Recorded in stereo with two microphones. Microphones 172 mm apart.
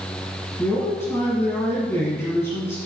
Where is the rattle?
I don't hear a rattle.